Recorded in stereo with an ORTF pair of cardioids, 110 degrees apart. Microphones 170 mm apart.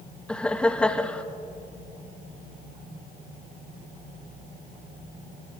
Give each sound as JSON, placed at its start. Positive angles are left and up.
{"t": 0.3, "sound": "laughter", "azimuth_deg": 5, "distance_m": 1.2}